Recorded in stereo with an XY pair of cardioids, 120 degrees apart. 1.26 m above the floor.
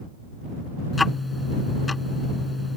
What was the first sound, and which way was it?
Ticking, 20° left.